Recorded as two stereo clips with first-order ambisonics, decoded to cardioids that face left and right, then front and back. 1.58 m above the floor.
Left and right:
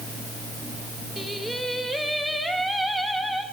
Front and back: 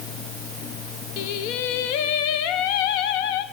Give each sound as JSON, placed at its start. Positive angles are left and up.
{"t": 1.2, "sound": "singing", "azimuth_deg": 0, "distance_m": 0.8}